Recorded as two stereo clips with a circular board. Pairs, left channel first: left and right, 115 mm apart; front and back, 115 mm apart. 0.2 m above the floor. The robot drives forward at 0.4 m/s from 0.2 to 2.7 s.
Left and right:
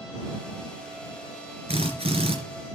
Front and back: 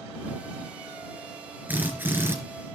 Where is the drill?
105° right, 3 m; by 2.4 s 115° right, 3 m.